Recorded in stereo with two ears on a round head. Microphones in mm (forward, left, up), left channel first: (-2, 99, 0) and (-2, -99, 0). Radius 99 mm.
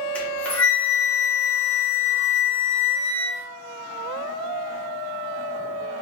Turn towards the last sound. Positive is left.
turn(degrees=5)  # may be behind; listen again after turning